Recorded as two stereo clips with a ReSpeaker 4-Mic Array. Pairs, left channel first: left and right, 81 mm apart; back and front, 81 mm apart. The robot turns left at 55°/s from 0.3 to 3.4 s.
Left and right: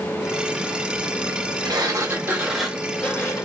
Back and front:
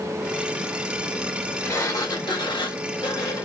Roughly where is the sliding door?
Behind right.